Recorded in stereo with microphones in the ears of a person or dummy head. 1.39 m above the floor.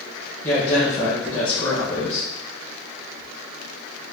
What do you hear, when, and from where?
0.4 s a woman speaking: 10° left (ahead or behind), 1.4 m